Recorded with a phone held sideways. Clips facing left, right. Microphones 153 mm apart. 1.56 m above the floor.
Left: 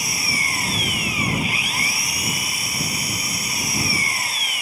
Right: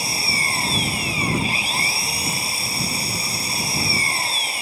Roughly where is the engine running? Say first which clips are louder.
Right 1 dB; right.